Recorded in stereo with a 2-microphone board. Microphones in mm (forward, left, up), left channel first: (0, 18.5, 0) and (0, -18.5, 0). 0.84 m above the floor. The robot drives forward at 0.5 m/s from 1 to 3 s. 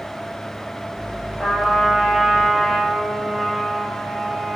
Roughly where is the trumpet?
Centre.